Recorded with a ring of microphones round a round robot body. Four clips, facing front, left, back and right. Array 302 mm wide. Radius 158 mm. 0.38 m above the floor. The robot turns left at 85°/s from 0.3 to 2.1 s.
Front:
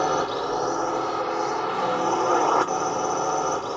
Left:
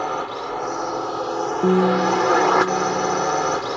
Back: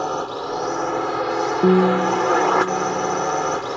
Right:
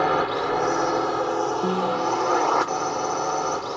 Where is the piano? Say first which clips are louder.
Left 6 dB, back 12 dB; 160° left; by 3.3 s 120° left.